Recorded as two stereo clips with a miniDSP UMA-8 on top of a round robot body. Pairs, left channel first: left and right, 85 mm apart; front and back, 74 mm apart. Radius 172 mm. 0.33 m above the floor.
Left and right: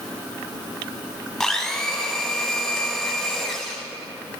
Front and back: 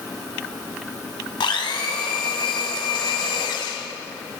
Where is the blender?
5° left, 1.2 m.